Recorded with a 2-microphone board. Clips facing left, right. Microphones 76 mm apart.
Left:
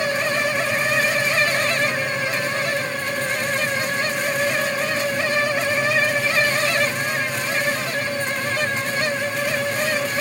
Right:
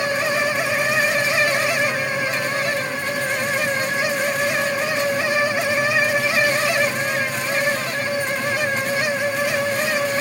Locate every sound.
Only background noise.